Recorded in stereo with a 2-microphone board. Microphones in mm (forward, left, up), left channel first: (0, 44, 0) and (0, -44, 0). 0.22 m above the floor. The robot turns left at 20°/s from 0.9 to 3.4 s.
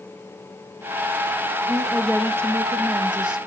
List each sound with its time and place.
1.7 s a woman speaking: 135° right, 2.5 m; by 3.5 s 170° right, 2.5 m